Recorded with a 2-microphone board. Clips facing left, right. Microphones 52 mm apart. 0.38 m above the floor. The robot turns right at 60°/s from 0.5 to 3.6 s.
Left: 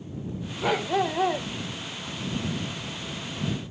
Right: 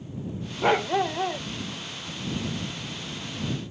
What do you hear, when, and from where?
0.6 s a dog barking: 25° right; by 1.5 s 25° left